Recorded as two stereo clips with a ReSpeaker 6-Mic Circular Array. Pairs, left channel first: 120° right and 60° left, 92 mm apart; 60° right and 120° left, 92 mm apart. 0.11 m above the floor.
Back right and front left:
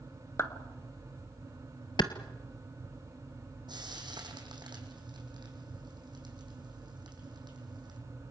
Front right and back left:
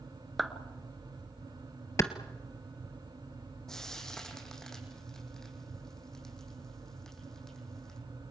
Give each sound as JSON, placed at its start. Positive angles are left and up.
{"t": 0.4, "sound": "a clap", "azimuth_deg": -150, "distance_m": 1.4}
{"t": 2.0, "sound": "a clap", "azimuth_deg": -110, "distance_m": 1.5}
{"t": 3.7, "sound": "frying", "azimuth_deg": 25, "distance_m": 4.0}